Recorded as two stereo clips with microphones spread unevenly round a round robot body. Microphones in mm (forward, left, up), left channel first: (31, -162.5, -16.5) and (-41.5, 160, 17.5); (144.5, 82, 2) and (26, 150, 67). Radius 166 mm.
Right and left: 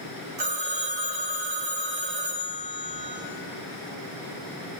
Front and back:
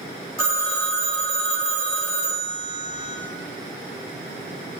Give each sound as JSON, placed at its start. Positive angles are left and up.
{"t": 0.4, "sound": "a phone ringing", "azimuth_deg": 40, "distance_m": 2.5}